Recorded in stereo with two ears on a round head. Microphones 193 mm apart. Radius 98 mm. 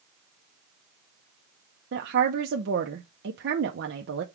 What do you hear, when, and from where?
1.9 s a woman speaking: 55° right (ahead or behind), 0.6 m